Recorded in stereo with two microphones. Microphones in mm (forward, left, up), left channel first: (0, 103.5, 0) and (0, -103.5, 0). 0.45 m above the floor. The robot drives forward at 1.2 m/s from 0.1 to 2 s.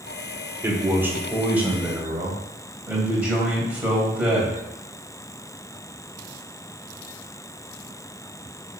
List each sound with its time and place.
0.6 s a man speaking: 10° right (ahead or behind), 1.3 m; by 4.6 s 5° right (ahead or behind), 2.5 m